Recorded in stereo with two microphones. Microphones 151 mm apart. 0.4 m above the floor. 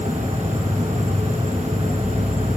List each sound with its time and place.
0.0 s an insect: 20° right (ahead or behind)